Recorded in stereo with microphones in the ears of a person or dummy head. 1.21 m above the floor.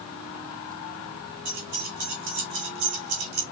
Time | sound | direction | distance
1.4 | keys jangling | 50° right (ahead or behind) | 2.5 m